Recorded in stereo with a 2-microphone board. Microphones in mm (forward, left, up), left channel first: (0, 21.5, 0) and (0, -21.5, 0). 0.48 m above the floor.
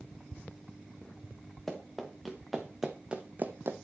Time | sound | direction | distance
1.7 | running footsteps | 10° left (ahead or behind) | 2.5 m